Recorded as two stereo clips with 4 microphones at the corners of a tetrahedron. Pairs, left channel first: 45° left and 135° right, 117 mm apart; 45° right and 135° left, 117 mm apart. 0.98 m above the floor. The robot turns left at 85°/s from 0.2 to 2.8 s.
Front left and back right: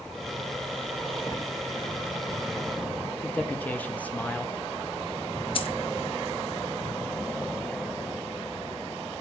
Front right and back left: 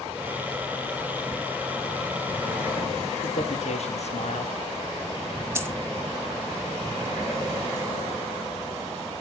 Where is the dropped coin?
70° left, 1.3 m.